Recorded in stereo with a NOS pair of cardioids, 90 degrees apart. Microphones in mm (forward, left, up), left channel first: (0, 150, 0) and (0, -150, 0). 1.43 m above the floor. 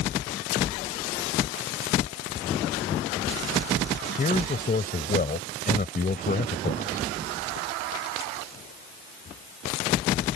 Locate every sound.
4.2 s a man speaking: 30° left